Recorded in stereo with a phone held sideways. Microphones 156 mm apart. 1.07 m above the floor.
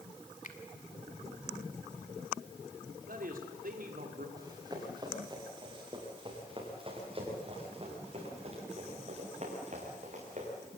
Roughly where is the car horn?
I don't hear a car horn.